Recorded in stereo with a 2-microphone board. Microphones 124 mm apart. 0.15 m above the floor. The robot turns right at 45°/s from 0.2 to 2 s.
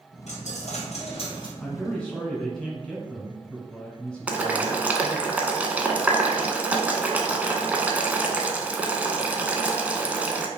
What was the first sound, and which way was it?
A dropped coin, 75° left.